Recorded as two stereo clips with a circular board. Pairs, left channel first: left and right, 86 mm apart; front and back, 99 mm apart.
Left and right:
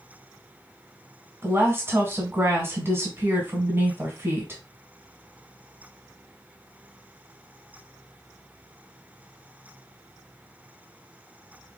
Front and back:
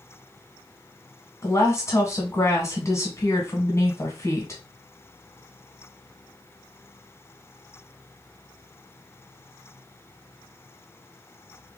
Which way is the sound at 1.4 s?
45° right.